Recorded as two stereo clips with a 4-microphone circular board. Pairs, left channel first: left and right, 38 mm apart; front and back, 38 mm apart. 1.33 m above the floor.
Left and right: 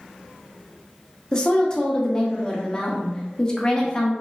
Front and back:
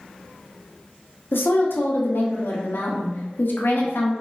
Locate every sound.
1.3 s a woman speaking: 20° left, 0.5 m